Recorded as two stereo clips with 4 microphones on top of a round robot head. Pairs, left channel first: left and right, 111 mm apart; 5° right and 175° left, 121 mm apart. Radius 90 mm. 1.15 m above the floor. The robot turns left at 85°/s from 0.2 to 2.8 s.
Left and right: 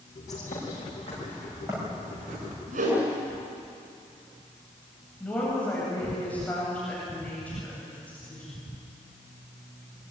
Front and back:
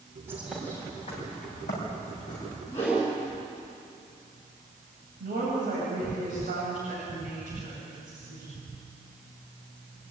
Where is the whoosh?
75° right, 7.5 m; by 3.0 s 85° right, 7.5 m.